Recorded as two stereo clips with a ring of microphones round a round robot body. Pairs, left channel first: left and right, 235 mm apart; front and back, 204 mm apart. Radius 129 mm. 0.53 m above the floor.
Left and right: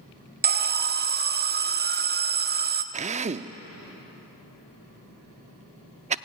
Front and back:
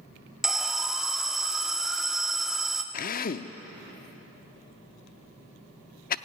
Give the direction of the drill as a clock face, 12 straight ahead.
1 o'clock.